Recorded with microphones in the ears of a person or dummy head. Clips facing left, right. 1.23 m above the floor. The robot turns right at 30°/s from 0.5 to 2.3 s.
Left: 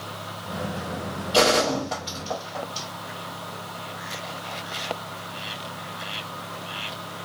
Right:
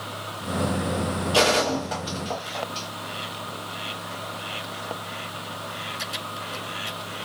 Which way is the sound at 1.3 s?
Centre (ahead or behind).